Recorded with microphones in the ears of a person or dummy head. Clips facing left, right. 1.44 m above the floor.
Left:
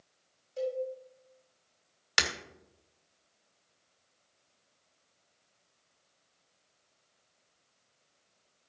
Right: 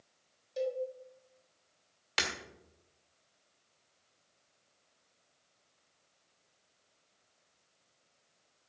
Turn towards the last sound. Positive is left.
turn(degrees=15)  # may be behind; listen again after turning